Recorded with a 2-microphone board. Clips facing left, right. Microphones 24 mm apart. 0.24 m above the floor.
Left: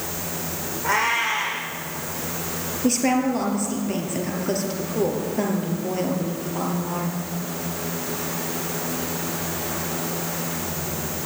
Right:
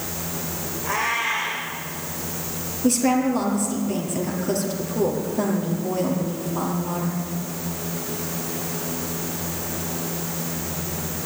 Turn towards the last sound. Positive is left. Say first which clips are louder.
# right 1 dB
turn(degrees=15)  # may be behind; listen again after turning